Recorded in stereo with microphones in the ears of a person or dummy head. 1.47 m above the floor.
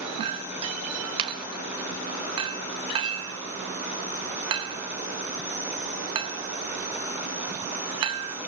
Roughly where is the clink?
Right.